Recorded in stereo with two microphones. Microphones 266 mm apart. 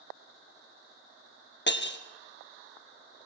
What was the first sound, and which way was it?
Breaking glass, 45° left (ahead or behind).